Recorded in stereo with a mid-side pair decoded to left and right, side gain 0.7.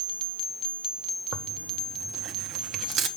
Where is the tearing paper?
45° right, 1.1 m.